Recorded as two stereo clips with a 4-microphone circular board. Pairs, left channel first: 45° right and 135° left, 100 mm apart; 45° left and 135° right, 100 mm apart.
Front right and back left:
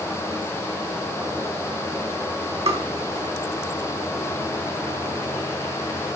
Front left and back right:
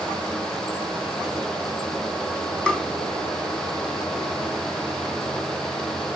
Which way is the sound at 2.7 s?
125° left.